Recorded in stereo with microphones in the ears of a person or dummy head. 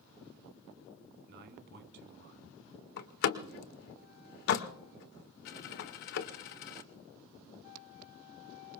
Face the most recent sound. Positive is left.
turn(degrees=45)  # may be behind; listen again after turning